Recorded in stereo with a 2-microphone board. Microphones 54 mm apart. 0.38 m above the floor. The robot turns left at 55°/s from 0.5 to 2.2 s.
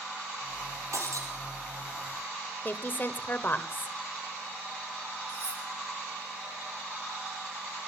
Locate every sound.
0.9 s breaking glass: 65° right (ahead or behind), 4 m; by 1.3 s 85° right, 4 m
2.6 s a woman speaking: 40° left (ahead or behind), 1.1 m
5.3 s cutlery clinking: 45° right (ahead or behind), 9.5 m